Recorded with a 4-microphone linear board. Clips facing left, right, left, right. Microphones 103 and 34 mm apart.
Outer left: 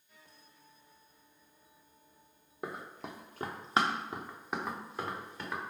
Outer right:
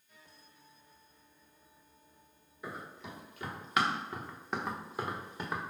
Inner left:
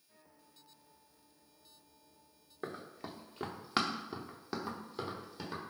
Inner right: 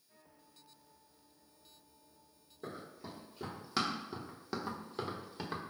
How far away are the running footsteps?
About 1.5 m.